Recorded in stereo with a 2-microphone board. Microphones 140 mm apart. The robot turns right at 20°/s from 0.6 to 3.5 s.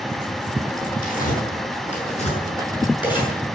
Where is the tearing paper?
70° left (ahead or behind), 7 m; by 3.3 s 30° left (ahead or behind), 7 m.